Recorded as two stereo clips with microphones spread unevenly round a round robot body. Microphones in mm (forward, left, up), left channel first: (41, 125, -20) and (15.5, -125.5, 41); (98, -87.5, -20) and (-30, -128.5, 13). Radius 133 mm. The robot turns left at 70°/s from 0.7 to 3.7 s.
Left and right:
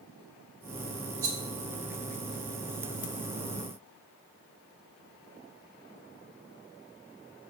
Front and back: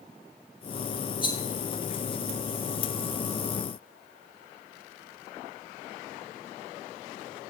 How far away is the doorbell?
I don't hear a doorbell.